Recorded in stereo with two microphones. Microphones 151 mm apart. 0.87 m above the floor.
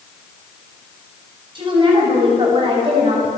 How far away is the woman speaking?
About 6.5 m.